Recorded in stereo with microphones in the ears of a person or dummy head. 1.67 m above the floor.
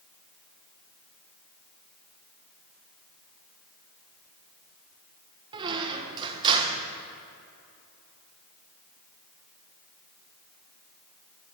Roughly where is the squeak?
Right.